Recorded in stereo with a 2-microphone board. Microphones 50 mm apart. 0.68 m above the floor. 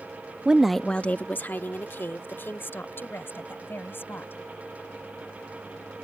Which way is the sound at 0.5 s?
20° right (ahead or behind).